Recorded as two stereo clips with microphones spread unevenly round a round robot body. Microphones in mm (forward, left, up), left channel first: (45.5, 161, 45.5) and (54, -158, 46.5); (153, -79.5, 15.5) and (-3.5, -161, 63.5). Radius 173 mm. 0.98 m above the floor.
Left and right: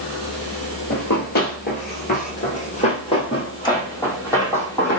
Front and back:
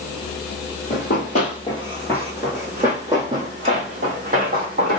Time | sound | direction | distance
0.9 | running footsteps | 55° left | 1.1 m